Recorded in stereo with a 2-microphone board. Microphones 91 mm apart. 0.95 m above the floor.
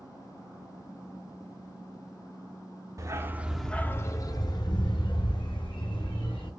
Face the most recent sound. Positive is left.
turn(degrees=75)  # may be behind; listen again after turning